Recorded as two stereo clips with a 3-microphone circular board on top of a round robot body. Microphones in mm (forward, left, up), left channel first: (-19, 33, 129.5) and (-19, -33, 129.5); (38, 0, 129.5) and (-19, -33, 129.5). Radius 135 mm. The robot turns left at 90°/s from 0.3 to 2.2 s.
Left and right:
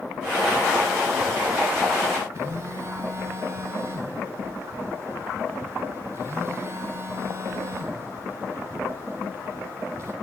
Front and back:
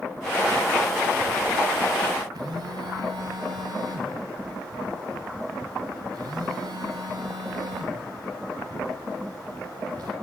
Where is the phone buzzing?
140° right, 3 m.